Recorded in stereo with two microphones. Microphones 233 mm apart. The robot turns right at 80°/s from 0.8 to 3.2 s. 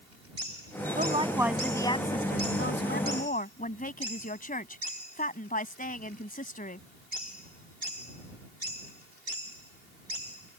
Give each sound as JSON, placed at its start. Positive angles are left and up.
{"t": 1.0, "sound": "a woman speaking", "azimuth_deg": -50}